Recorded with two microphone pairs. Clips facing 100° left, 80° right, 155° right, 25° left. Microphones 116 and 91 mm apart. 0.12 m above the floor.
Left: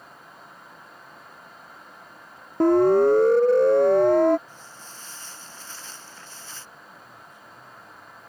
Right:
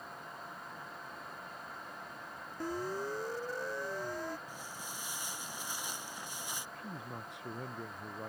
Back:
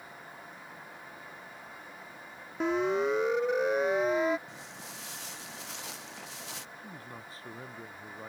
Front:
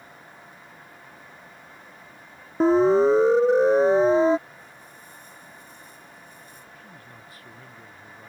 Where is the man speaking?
95° right.